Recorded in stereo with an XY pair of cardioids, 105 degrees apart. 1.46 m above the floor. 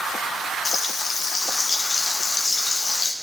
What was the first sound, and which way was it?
Frying, 35° left.